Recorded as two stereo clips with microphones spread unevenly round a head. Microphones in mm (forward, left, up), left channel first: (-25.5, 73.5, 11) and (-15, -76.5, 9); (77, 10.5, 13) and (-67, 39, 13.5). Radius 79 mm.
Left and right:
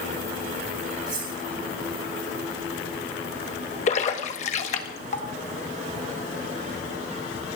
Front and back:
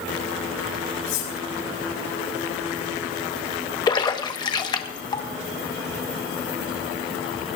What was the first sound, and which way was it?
Cutlery clinking, 20° right.